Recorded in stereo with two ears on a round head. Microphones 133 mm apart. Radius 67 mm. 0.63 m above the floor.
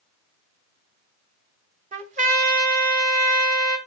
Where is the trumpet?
50° right (ahead or behind), 1.6 m.